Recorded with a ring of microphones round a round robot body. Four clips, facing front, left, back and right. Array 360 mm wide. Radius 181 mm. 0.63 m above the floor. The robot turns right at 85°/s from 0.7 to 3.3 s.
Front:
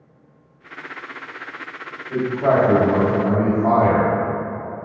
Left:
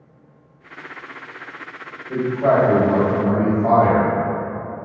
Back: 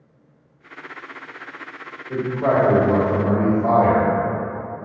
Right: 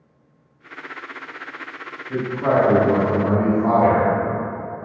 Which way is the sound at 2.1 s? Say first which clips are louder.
Left 3 dB, front 2 dB; 140° left.